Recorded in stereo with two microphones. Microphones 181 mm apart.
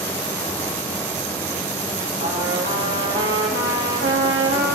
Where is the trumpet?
85° right, 2.5 m.